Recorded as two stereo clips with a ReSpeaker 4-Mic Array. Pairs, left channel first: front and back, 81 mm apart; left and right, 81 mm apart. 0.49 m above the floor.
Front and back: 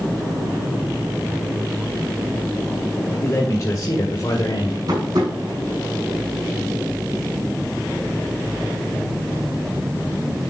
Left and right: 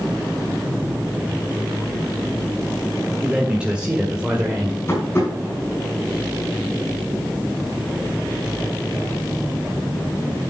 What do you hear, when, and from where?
3.2 s a man speaking: 20° right, 1.6 m; by 4.8 s 15° right, 2 m
4.9 s tapping: 145° left, 6 m